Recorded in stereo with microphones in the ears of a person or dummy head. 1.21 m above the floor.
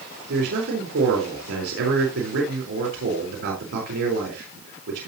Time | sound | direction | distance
0.3 | a man speaking | 85° right | 4 m